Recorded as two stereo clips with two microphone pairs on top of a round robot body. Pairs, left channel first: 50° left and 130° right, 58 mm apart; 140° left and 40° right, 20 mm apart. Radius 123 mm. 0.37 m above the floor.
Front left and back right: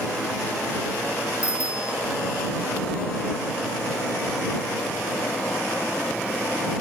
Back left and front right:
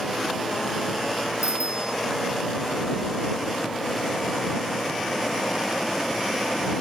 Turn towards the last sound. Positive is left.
turn(degrees=-65)